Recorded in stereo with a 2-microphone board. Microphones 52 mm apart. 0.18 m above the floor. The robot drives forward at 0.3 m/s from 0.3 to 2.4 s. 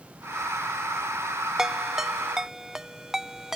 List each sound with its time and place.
1.6 s a ringtone: 10° right (ahead or behind)